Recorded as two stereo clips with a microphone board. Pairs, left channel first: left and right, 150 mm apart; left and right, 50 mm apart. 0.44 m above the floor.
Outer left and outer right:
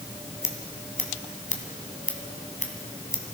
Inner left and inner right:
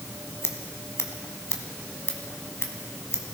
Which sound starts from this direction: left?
Scissors, at 0.4 s.